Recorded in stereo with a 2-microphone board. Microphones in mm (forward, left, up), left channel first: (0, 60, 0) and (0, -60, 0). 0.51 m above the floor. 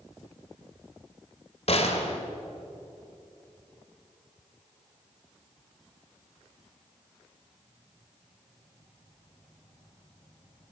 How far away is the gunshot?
About 2 m.